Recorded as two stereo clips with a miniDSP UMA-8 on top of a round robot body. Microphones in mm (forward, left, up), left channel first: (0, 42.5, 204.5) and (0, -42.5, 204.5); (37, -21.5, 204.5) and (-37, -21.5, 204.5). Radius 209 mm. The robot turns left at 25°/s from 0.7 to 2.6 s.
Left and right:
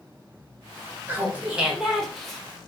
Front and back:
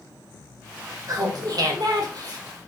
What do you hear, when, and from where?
1.1 s laughter: 155° right, 1.5 m; by 2.4 s 175° left, 1.5 m